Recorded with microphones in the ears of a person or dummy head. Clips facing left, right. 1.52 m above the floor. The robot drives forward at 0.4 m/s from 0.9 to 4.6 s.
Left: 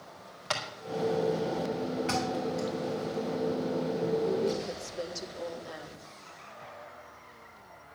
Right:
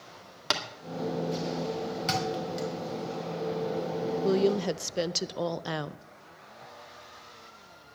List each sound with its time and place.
0.5 s tapping: 70° right (ahead or behind), 2 m
2.1 s a thud: 55° right (ahead or behind), 3 m
4.2 s a woman speaking: 80° right, 0.7 m